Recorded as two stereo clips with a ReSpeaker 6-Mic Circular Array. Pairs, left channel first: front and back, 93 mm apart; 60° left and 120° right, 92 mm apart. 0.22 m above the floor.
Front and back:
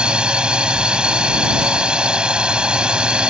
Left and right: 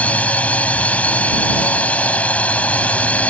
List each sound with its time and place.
0.0 s a drone: 115° left